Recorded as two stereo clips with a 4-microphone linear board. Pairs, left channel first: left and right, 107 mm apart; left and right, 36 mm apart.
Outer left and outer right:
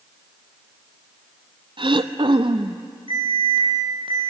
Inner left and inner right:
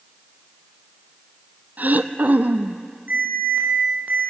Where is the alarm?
50° right (ahead or behind), 4 m.